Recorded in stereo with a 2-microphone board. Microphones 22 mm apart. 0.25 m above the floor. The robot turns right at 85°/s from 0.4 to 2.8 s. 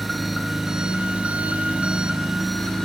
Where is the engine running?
Straight behind, 1.0 m; by 2.9 s 20° left, 1.0 m.